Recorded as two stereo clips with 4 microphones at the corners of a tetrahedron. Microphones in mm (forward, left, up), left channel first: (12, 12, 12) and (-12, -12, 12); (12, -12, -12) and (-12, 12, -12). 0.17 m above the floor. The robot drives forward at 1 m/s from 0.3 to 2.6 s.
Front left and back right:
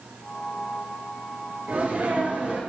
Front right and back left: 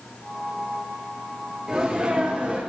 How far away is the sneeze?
About 3.5 m.